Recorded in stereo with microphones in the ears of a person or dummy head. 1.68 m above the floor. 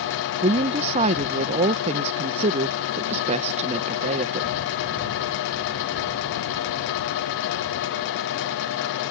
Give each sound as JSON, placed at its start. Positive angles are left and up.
{"t": 0.4, "sound": "a woman speaking", "side_deg": -35}